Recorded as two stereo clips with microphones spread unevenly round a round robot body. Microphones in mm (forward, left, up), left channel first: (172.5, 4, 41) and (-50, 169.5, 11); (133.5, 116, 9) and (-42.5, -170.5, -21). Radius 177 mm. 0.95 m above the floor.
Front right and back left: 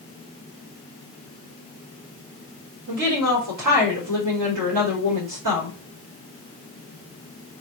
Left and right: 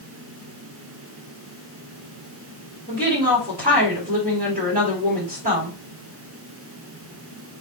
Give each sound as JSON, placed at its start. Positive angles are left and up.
{"t": 2.9, "sound": "a woman speaking", "azimuth_deg": 165, "distance_m": 2.0}